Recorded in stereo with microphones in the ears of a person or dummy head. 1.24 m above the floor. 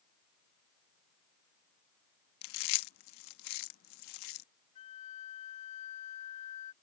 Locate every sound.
2.4 s chewing: 65° left (ahead or behind)
4.8 s a flute: 40° left (ahead or behind)